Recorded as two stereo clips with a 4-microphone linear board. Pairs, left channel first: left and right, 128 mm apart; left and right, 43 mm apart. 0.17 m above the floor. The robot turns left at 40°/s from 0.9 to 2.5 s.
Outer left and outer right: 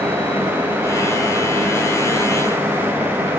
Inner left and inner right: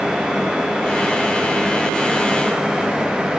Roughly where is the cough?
I don't hear a cough.